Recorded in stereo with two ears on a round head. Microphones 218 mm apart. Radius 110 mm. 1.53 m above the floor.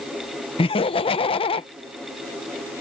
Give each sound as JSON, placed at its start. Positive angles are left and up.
{"t": 0.6, "sound": "laughter", "side_deg": 20}